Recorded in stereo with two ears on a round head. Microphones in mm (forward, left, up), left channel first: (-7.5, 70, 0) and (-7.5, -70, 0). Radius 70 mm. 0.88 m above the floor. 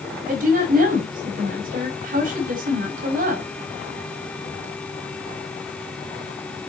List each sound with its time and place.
0.3 s a woman speaking: 60° right (ahead or behind), 5 m